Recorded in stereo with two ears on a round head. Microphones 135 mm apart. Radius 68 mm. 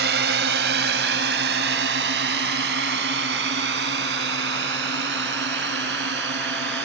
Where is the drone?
75° right (ahead or behind); by 6.8 s 85° right.